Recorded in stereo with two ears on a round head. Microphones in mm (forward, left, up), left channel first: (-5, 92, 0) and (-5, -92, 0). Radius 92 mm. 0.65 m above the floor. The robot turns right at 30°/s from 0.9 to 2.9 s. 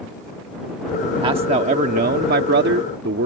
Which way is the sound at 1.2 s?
150° right.